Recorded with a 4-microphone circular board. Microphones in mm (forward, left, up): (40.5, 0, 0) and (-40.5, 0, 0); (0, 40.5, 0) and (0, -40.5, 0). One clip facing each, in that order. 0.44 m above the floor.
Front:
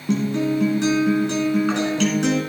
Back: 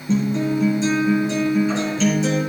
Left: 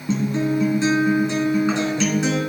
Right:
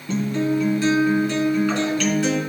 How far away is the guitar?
About 3 m.